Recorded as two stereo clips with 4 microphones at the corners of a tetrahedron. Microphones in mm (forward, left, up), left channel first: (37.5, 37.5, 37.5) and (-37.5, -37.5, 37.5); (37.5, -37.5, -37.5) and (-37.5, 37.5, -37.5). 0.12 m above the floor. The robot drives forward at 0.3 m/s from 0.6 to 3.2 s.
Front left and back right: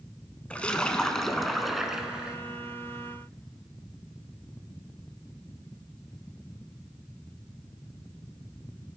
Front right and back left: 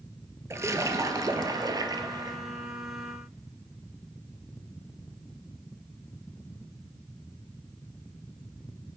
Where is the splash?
115° left, 1.0 m; by 2.4 s 145° left, 1.2 m.